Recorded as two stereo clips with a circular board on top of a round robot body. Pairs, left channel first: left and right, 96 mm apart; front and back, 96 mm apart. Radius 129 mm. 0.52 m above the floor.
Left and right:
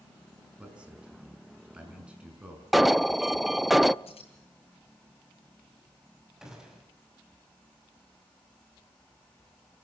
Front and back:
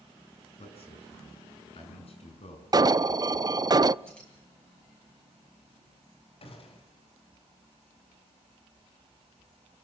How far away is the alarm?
About 0.5 m.